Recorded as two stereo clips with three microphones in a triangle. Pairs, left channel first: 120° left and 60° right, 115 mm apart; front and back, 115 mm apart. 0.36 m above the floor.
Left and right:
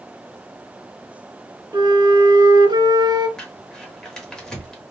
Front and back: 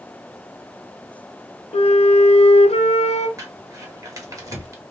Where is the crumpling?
165° right, 1.0 m.